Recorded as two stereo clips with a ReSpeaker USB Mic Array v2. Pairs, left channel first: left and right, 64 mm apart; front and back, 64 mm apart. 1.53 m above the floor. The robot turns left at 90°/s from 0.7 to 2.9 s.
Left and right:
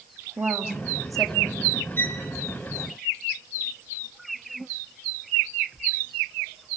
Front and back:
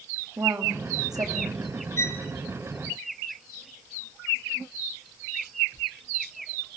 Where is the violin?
40° left, 3 m; by 2.2 s 15° left, 3 m.